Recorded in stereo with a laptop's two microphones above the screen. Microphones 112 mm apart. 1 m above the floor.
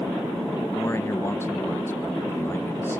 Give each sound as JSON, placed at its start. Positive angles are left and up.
{"t": 0.8, "sound": "a man speaking", "side_deg": 25, "distance_m": 0.7}